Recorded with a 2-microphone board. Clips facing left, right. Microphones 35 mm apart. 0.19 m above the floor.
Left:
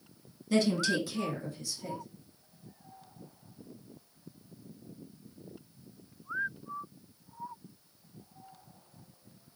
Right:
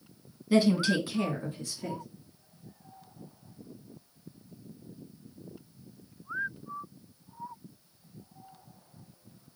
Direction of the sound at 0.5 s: 15° right (ahead or behind).